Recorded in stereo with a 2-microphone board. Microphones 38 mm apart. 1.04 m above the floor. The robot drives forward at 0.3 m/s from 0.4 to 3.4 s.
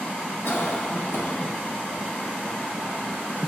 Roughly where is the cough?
Left.